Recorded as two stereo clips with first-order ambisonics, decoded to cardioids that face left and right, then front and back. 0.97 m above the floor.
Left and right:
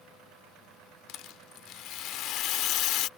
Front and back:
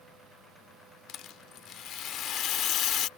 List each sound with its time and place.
1.1 s a rattle: 50° left